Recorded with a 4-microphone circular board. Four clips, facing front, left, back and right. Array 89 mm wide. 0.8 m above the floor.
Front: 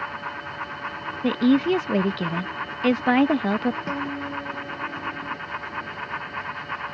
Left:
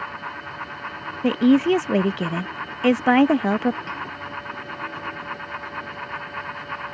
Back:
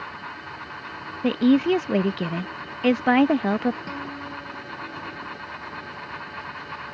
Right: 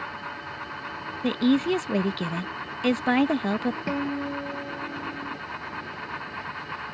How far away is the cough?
I don't hear a cough.